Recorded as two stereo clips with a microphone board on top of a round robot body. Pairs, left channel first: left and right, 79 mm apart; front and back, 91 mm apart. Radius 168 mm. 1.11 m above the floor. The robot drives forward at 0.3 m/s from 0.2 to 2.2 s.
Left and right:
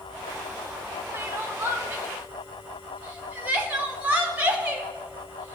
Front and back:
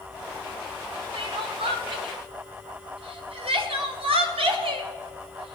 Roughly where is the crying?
Behind right.